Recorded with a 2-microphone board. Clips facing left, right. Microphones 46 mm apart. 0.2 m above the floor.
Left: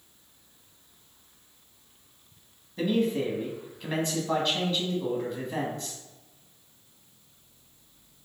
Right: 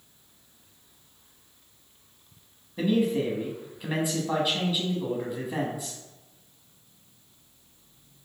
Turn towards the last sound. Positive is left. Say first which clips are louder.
# right 1 dB
turn(degrees=-10)  # may be behind; listen again after turning